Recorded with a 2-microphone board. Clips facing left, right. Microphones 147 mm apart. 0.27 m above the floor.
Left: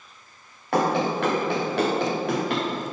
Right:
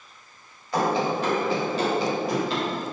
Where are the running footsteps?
80° left, 2 m; by 2.6 s 70° left (ahead or behind), 3 m.